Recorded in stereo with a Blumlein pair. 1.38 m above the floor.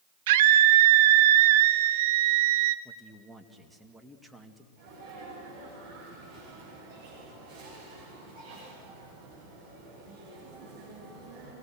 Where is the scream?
50° right, 1.1 m.